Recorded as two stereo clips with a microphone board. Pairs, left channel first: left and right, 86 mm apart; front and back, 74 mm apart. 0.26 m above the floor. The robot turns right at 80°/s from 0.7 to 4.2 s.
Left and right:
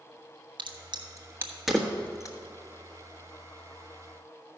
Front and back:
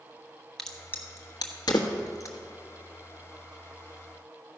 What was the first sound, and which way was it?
A crack, 85° right.